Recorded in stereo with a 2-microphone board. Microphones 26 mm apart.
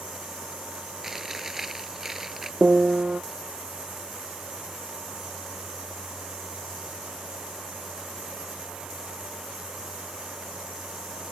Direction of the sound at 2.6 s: 45° right (ahead or behind).